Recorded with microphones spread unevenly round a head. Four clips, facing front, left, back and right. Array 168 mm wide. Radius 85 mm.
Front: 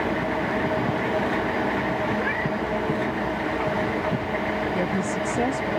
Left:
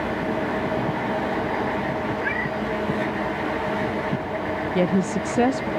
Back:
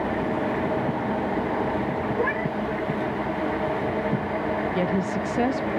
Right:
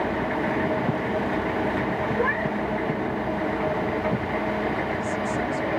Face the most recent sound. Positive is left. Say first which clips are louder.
# left 5 dB, back 1 dB
turn(degrees=85)